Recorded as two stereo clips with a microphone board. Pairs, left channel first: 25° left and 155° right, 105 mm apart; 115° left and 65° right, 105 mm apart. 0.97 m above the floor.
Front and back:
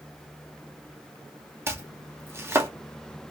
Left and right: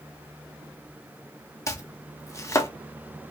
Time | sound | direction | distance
1.7 | chopping | 150° left | 0.5 m